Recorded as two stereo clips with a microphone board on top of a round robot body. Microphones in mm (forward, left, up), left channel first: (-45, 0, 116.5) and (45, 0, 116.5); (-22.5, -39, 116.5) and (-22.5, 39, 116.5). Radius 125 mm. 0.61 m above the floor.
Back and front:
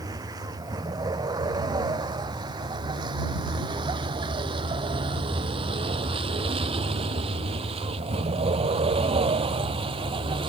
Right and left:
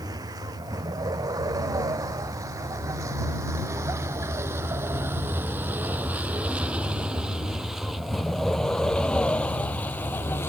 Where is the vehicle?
50° left; by 10.5 s 25° right.